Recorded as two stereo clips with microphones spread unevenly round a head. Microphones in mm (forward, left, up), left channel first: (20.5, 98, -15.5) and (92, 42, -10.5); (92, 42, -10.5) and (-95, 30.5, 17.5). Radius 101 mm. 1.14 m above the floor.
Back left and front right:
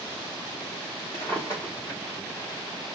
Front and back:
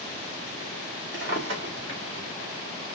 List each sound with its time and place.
1.1 s a drawer: 140° right, 1.4 m